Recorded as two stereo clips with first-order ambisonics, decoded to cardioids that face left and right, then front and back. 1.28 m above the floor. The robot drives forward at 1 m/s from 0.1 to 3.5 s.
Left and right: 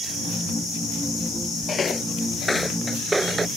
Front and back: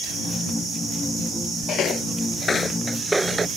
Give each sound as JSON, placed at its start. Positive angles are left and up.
{"t": 1.7, "sound": "footsteps", "azimuth_deg": 30}